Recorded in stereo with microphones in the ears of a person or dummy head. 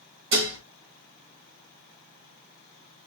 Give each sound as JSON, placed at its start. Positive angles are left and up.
{"t": 0.3, "sound": "dishes clattering", "side_deg": -60, "distance_m": 1.2}